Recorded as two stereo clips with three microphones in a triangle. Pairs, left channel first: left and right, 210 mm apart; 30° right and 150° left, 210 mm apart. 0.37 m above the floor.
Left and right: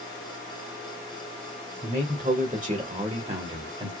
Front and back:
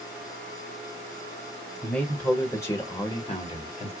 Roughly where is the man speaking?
Behind right.